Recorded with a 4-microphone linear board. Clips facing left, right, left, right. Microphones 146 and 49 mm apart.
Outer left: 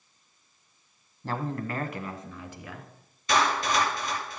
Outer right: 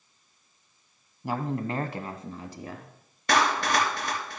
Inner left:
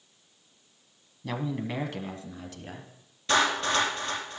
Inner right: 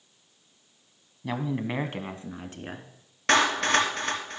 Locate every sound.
1.2 s a man speaking: 10° right (ahead or behind), 1.0 m; by 2.9 s 40° right (ahead or behind), 1.8 m
3.3 s a clap: 65° right (ahead or behind), 3 m